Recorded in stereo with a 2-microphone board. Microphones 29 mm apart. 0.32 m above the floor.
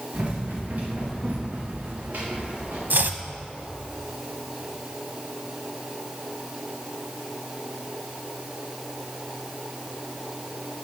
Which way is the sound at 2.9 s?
75° right (ahead or behind).